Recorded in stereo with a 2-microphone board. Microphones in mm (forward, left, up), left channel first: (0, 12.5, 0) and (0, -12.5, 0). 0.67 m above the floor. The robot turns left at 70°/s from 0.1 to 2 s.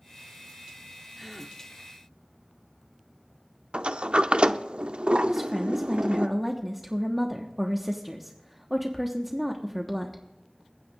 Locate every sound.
1.2 s a gasp: 15° right (ahead or behind), 1.0 m; by 1.6 s 10° left (ahead or behind), 1.0 m
3.7 s a sliding door: 50° right (ahead or behind), 0.6 m
5.3 s a woman speaking: 10° right (ahead or behind), 1.2 m